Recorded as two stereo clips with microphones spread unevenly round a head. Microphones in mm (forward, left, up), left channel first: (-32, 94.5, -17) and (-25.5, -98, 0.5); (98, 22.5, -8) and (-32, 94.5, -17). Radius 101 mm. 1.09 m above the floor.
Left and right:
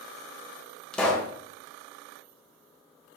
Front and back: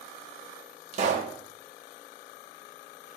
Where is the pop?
Straight behind, 1.0 m.